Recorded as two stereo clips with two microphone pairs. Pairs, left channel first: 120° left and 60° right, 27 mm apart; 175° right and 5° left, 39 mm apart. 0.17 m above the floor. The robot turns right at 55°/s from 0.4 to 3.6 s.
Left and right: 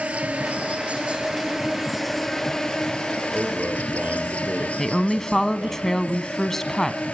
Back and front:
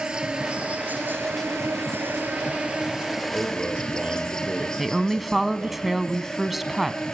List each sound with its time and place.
0.0 s an insect: 60° right, 2.5 m; by 7.2 s 115° left, 2.5 m
3.3 s a man speaking: 65° right, 5 m; by 5.8 s 50° right, 5 m
4.8 s a woman speaking: 80° left, 1.1 m